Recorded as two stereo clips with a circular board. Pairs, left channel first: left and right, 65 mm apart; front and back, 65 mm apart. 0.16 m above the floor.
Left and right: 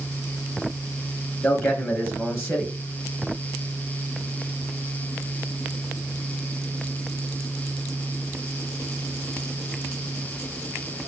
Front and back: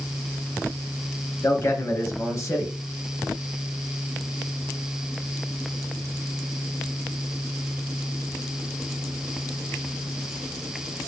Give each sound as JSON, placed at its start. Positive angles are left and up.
{"t": 1.4, "sound": "a man speaking", "azimuth_deg": 40, "distance_m": 3.0}